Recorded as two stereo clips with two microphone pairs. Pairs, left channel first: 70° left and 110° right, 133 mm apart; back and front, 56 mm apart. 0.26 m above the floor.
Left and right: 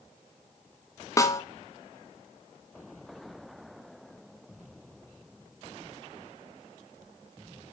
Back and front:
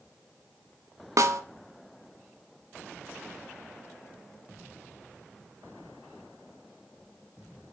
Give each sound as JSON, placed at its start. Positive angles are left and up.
{"t": 1.2, "sound": "a snare drum", "azimuth_deg": 10, "distance_m": 0.6}